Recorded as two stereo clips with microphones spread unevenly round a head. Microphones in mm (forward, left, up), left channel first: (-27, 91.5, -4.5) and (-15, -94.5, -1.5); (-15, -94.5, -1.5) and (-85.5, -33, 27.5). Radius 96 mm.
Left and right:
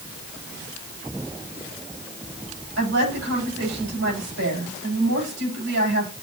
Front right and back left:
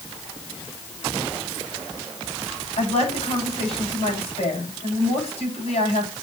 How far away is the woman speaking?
About 10 m.